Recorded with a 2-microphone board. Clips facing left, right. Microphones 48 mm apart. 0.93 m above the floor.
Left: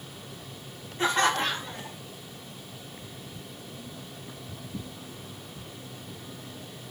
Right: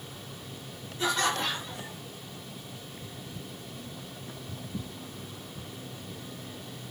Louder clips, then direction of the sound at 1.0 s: Left 4 dB; 40° left (ahead or behind).